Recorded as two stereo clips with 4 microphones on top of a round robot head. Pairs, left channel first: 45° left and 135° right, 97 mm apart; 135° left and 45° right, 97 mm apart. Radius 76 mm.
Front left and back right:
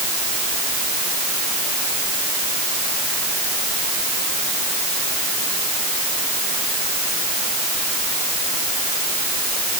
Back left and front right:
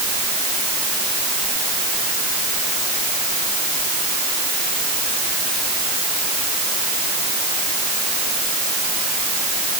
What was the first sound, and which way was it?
Only background noise.